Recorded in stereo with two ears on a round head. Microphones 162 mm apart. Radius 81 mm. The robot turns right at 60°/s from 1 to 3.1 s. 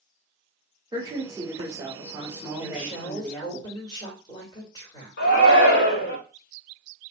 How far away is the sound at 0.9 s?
About 1.2 m.